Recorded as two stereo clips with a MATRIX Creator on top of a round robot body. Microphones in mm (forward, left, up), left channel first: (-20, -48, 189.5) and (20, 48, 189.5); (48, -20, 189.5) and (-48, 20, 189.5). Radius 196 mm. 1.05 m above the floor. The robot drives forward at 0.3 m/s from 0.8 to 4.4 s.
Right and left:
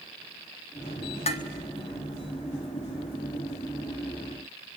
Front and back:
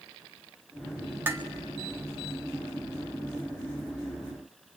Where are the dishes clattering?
130° right, 1.0 m; by 1.5 s 135° right, 1.0 m.